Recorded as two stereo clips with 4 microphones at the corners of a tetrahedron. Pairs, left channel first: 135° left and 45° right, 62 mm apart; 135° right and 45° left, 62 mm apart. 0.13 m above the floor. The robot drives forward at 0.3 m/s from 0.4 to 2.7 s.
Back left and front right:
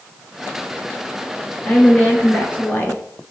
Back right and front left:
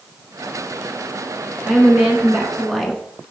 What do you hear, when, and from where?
1.6 s a woman speaking: 105° left, 1.2 m; by 3.0 s 130° left, 1.3 m